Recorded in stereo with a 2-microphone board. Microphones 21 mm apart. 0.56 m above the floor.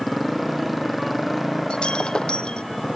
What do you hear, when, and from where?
0.0 s a motorcycle: 5° left (ahead or behind)
1.7 s breaking glass: 40° left (ahead or behind)